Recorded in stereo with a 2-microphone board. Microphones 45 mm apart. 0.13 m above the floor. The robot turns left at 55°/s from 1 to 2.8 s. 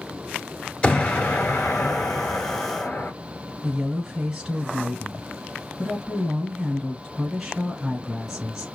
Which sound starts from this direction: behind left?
An explosion, at 0.8 s.